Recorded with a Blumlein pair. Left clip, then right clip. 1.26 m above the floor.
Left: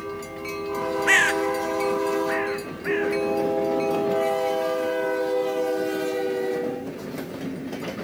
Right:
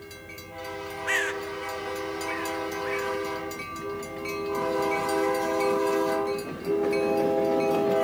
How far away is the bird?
About 0.8 m.